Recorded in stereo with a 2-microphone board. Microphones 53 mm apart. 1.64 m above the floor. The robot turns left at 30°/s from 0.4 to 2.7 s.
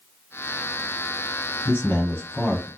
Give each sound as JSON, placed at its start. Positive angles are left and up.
{"t": 1.6, "sound": "a man speaking", "azimuth_deg": 45, "distance_m": 1.1}